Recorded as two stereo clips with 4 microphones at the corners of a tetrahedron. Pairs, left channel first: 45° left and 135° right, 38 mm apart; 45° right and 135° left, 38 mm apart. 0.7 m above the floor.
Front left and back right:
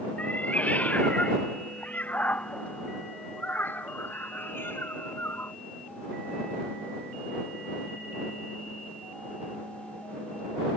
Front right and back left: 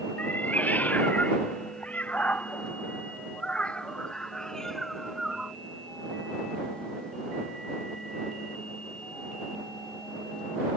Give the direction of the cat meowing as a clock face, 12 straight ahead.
12 o'clock.